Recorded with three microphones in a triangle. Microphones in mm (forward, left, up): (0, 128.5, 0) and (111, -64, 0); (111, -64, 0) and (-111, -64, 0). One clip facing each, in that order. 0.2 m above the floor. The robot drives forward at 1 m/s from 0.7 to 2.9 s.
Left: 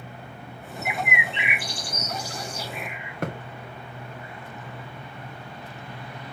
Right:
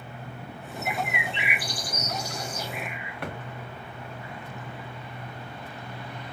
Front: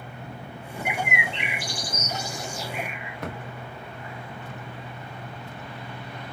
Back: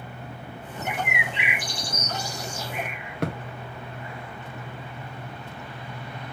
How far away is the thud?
About 2.5 m.